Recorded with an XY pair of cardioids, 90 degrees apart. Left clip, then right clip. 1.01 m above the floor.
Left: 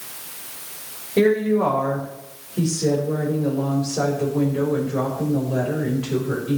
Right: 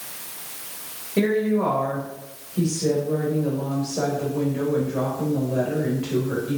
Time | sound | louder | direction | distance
1.2 | a woman speaking | left 4 dB | 20° left | 4 m